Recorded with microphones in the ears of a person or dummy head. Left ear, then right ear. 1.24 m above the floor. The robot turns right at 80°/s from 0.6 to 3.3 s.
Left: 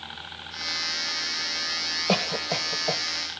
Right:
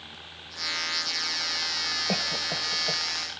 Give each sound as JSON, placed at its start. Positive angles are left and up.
{"t": 0.0, "sound": "a helicopter", "azimuth_deg": 145}
{"t": 2.1, "sound": "a cough", "side_deg": 45}